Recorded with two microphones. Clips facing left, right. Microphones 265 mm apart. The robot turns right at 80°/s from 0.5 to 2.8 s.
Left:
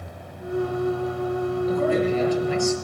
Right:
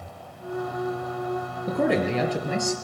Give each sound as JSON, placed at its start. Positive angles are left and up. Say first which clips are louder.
{"t": 1.7, "sound": "a man speaking", "louder": "even", "azimuth_deg": -120, "distance_m": 5.5}